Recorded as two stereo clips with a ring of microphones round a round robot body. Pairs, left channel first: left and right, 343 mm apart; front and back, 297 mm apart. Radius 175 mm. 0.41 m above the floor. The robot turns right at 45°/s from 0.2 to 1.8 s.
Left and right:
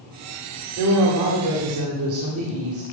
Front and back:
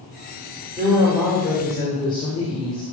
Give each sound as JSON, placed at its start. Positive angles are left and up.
{"t": 0.8, "sound": "a woman speaking", "azimuth_deg": -120, "distance_m": 2.0}